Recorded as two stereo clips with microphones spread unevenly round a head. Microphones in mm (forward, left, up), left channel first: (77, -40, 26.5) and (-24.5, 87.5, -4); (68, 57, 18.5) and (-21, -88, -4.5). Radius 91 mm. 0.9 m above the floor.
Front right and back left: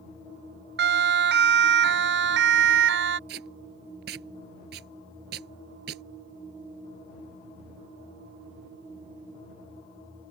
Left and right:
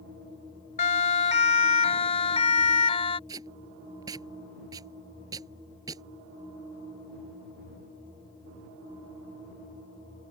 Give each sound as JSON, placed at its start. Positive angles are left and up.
{"t": 0.8, "sound": "a siren", "azimuth_deg": 115}
{"t": 3.3, "sound": "tape being pulled", "azimuth_deg": 165}